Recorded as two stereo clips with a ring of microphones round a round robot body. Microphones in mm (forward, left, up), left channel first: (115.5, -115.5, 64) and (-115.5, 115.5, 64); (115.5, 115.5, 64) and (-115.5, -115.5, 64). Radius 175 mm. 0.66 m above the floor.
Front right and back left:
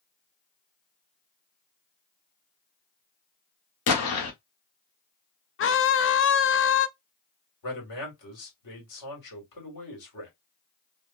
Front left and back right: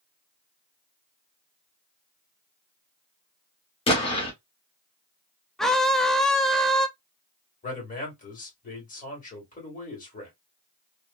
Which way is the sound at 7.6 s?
20° right.